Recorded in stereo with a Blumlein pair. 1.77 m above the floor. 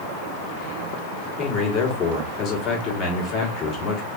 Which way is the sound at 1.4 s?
30° left.